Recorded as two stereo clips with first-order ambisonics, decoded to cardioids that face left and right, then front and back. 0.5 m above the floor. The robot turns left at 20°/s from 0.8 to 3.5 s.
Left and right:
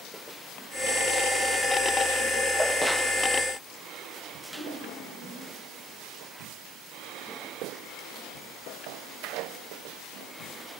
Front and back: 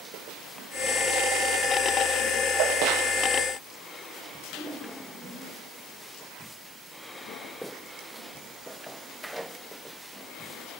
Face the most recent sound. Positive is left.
turn(degrees=-100)